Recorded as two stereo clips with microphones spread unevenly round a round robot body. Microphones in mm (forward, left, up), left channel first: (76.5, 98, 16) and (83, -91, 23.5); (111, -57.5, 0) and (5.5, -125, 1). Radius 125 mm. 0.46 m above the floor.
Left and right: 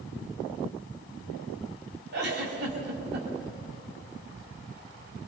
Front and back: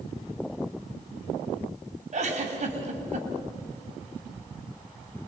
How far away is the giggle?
About 3 m.